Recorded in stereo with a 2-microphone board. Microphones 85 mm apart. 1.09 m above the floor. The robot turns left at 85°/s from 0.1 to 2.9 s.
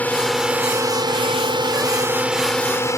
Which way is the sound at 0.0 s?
20° left.